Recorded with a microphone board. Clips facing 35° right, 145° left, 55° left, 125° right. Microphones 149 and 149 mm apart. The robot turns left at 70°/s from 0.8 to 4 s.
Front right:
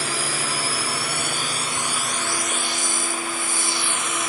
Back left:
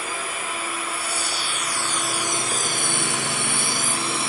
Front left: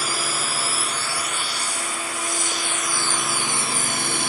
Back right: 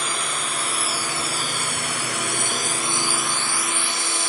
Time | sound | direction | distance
0.0 | a drone | 30° right | ?